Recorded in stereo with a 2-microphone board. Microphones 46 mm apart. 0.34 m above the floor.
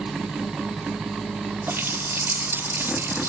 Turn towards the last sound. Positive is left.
turn(degrees=-55)  # may be behind; listen again after turning